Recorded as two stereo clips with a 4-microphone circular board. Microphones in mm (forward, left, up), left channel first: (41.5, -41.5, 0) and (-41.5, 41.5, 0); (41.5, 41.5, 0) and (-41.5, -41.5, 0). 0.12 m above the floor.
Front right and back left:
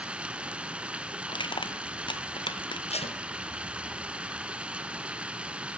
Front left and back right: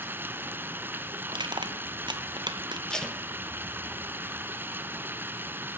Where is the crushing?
90° right, 1.4 m.